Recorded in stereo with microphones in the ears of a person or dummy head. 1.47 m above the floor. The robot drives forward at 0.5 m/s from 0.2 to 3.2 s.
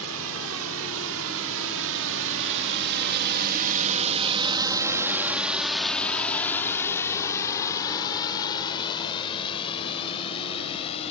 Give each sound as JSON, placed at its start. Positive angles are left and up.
{"t": 0.0, "sound": "a drone", "side_deg": -85}